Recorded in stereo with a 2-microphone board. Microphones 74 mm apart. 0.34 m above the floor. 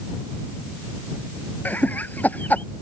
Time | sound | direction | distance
1.6 | laughter | 25° left (ahead or behind) | ?